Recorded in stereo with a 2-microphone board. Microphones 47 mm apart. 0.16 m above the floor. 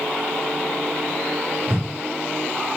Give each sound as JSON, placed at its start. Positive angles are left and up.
{"t": 1.7, "sound": "a whoosh", "side_deg": -55, "distance_m": 1.7}